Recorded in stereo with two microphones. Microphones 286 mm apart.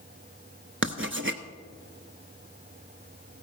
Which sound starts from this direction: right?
Writing, at 0.8 s.